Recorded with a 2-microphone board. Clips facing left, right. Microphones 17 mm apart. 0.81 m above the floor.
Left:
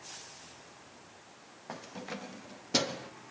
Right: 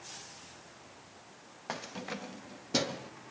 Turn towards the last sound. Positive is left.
turn(degrees=20)  # may be behind; listen again after turning